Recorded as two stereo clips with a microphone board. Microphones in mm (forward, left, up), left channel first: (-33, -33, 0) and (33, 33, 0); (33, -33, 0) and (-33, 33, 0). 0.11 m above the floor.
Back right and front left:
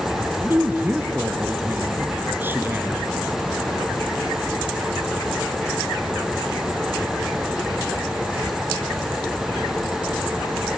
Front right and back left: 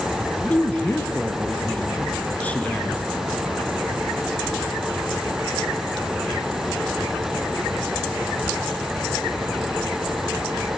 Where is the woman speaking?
10° left, 1.2 m.